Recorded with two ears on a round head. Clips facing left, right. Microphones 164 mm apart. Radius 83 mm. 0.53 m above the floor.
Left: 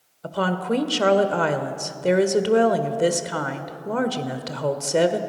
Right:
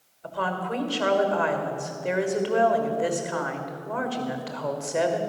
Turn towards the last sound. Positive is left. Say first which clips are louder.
# left 5 dB
turn(degrees=50)  # may be behind; listen again after turning